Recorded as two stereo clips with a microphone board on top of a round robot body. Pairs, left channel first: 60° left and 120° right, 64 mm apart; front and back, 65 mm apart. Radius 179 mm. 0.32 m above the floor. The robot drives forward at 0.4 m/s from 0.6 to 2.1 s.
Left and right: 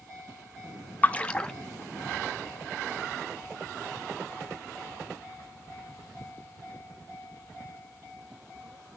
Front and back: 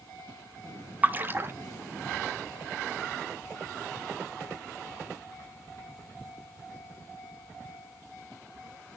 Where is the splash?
120° left, 0.7 m; by 1.5 s 140° left, 0.8 m.